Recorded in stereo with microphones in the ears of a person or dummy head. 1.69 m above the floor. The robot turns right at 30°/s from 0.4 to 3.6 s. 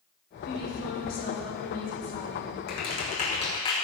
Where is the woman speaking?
90° left, 3 m; by 2.6 s 155° left, 3 m.